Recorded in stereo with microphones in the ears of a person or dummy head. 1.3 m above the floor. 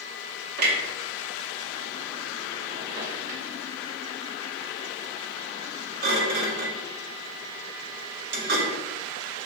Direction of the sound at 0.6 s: 55° right (ahead or behind).